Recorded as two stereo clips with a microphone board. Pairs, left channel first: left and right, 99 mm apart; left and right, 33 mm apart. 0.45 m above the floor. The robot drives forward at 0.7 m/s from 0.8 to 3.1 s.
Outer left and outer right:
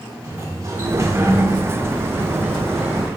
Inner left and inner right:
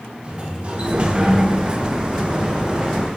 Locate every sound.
0.2 s a sliding door: 30° right (ahead or behind), 0.6 m; by 3.1 s 10° right (ahead or behind), 1.6 m